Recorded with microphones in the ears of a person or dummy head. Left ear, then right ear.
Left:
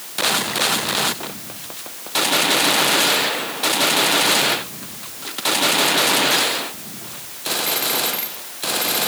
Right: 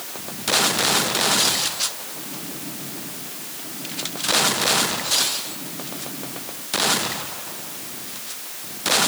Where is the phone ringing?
I don't hear a phone ringing.